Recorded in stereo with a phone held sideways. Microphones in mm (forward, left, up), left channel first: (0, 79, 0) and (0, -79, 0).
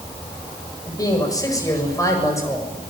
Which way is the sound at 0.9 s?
25° left (ahead or behind).